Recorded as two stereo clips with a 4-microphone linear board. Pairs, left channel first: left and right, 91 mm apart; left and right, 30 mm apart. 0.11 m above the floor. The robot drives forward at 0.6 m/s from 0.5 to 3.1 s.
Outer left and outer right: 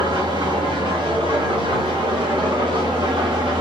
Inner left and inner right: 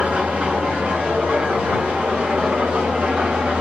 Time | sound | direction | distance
0.0 | an engine running | 70° right (ahead or behind) | 4.5 m